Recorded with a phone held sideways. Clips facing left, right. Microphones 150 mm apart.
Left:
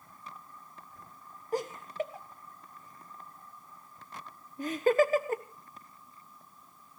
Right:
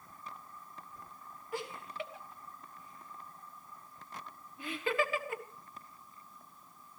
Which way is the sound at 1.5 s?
40° left (ahead or behind).